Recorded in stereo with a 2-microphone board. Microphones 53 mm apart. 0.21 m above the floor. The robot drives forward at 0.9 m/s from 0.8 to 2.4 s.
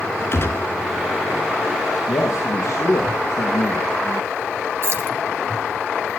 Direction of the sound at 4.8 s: 50° right (ahead or behind).